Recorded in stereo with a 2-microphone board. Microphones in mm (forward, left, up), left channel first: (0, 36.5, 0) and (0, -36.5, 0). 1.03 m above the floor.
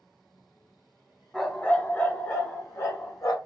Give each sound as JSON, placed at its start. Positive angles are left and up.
{"t": 1.3, "sound": "a dog barking", "side_deg": 10, "distance_m": 1.2}